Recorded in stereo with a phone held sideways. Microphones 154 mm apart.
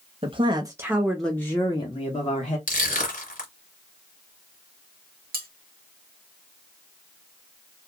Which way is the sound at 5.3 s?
90° right.